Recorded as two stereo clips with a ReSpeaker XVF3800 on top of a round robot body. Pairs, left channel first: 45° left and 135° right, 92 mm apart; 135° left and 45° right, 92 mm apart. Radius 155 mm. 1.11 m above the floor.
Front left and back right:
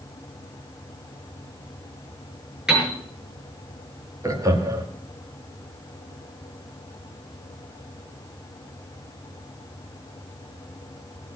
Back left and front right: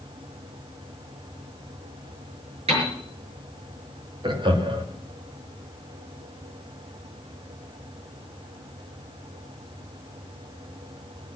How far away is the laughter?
About 2.5 m.